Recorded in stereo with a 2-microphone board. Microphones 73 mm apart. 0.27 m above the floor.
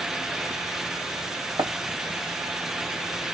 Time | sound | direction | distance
1.6 | running footsteps | 60° right (ahead or behind) | 2.0 m